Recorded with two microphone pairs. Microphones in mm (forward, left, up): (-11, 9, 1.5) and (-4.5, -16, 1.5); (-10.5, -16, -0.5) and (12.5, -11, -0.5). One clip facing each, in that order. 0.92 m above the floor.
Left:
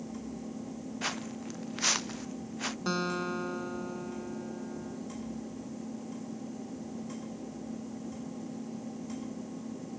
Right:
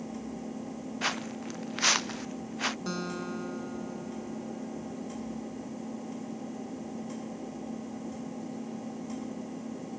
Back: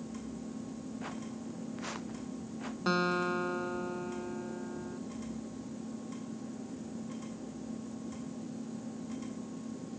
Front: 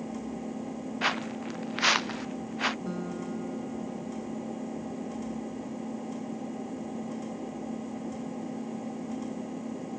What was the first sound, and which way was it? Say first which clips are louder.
An engine running: right 2 dB, front 6 dB; 10° right.